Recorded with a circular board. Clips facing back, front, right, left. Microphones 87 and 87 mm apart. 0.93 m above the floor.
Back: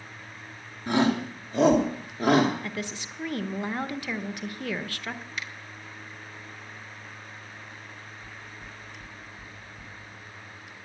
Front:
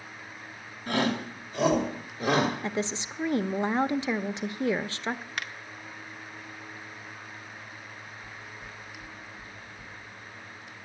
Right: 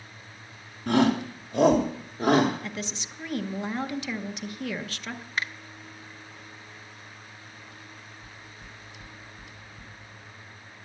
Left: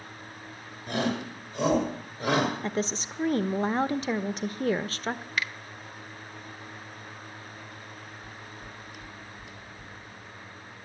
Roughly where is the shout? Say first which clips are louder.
Back 4 dB, right 7 dB; right.